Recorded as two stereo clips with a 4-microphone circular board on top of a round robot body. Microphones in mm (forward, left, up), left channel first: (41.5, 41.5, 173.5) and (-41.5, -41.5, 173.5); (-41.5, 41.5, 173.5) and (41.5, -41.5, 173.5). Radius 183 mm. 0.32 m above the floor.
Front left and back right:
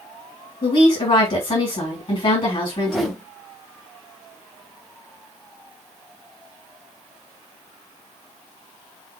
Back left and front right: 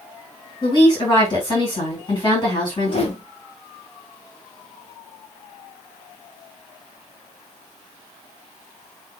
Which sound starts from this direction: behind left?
A whoosh, at 2.7 s.